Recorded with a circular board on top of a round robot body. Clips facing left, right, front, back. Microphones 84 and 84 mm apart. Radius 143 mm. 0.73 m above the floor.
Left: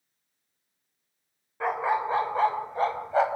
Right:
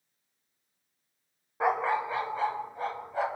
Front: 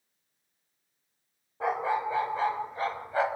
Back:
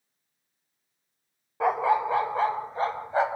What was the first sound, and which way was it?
A dog barking, 165° right.